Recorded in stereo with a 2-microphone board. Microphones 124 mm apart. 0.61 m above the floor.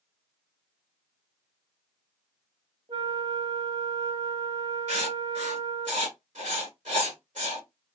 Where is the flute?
55° right (ahead or behind), 1.2 m.